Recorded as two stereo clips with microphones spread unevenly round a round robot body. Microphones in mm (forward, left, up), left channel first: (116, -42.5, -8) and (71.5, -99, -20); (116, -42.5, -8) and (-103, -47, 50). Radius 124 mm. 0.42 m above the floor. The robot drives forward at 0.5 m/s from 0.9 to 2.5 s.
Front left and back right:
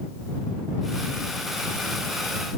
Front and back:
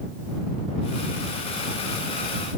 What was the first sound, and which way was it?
Only background noise.